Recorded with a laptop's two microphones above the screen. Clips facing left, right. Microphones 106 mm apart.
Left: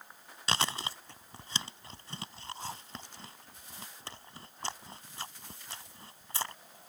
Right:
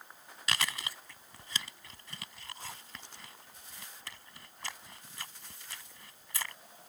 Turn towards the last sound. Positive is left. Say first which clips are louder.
# left 4 dB
turn(degrees=30)  # may be behind; listen again after turning